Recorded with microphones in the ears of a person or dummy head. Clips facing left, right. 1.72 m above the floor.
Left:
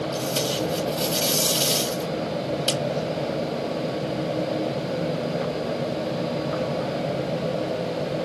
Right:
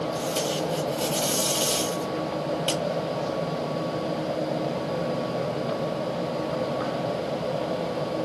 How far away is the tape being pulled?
About 1.2 m.